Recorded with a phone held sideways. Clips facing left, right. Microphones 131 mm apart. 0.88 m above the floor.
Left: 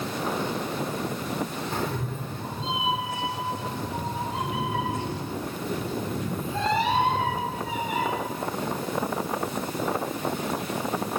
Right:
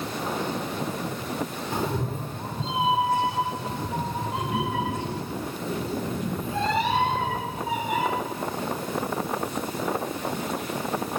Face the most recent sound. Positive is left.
turn(degrees=-65)  # may be behind; listen again after turning